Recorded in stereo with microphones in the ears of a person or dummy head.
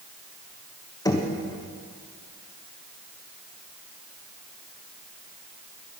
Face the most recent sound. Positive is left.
turn(degrees=20)  # may be behind; listen again after turning